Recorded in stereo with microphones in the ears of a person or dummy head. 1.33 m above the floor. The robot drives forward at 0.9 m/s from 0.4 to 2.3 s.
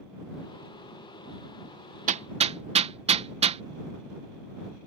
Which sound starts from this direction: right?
Hammering, at 2.1 s.